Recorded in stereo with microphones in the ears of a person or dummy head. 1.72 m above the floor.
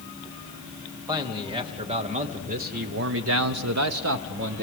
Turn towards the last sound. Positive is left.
turn(degrees=-55)  # may be behind; listen again after turning